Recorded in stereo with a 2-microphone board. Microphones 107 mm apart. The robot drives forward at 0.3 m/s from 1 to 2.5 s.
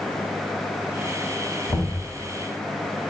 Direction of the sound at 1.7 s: 20° left (ahead or behind).